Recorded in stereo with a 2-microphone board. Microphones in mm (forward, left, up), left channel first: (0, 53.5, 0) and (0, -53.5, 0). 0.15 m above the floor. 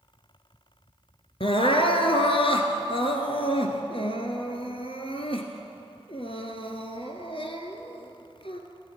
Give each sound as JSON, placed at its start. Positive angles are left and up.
{"t": 1.4, "sound": "crying", "side_deg": 65, "distance_m": 0.8}